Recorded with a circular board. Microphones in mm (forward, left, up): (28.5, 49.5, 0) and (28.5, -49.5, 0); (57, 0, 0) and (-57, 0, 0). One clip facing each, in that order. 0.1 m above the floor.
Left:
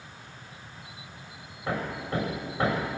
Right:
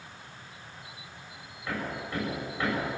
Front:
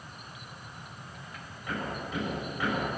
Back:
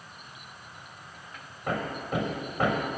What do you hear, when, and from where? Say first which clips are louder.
1.7 s hammering: left 3 dB, back 4 dB; 140° left, 6.5 m